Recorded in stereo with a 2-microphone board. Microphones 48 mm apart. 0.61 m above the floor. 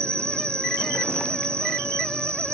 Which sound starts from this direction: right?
An insect, at 0.0 s.